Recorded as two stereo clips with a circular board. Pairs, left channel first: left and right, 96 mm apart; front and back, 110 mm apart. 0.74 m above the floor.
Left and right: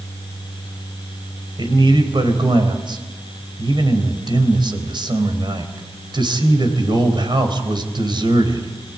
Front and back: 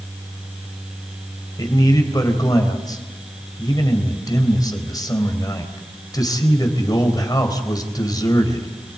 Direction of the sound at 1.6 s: 55° right.